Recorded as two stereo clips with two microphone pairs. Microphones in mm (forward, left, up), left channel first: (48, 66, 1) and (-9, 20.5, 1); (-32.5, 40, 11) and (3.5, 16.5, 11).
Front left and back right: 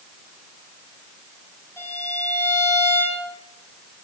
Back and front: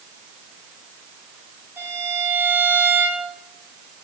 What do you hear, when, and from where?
1.8 s a violin: 15° right, 9 m